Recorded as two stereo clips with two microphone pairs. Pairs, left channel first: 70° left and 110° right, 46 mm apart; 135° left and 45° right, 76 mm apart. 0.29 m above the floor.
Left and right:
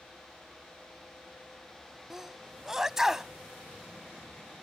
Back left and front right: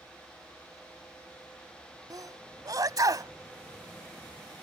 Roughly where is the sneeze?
Ahead right.